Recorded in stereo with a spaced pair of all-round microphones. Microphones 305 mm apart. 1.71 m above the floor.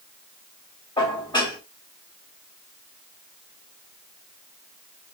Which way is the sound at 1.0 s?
15° left (ahead or behind).